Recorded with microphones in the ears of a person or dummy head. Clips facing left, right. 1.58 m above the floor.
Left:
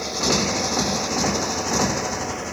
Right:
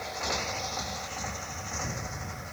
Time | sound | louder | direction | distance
0.0 | a motorcycle | left 12 dB | 60° left (ahead or behind) | ?